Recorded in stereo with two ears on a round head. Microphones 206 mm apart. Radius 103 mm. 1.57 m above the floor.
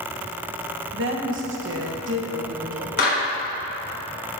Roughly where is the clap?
Left.